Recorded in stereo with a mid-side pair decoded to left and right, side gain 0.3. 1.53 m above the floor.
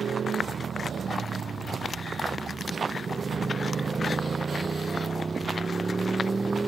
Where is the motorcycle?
70° right; by 6.7 s 35° right.